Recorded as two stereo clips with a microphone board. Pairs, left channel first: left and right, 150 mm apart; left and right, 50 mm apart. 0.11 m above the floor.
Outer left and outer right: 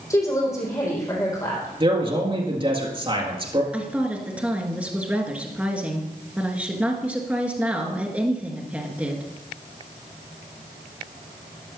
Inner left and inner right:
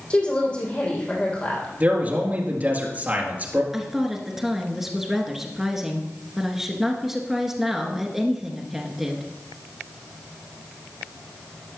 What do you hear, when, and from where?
0.1 s a woman speaking: 20° left (ahead or behind), 5 m
1.8 s a man speaking: 35° right (ahead or behind), 2.5 m
3.7 s a woman speaking: 10° right (ahead or behind), 1.8 m